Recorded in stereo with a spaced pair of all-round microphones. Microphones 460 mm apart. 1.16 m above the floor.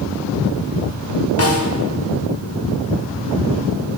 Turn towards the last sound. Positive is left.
turn(degrees=30)  # may be behind; listen again after turning